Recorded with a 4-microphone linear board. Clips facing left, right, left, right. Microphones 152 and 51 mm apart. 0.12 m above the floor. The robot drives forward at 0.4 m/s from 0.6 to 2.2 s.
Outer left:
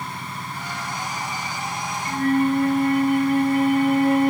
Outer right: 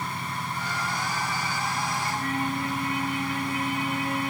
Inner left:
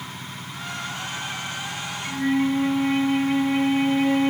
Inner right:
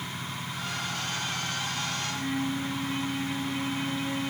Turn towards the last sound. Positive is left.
turn(degrees=55)  # may be behind; listen again after turning